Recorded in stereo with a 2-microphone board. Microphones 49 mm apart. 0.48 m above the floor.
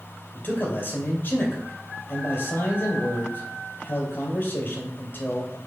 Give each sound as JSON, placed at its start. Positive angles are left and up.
{"t": 0.3, "sound": "a man speaking", "side_deg": 50, "distance_m": 2.5}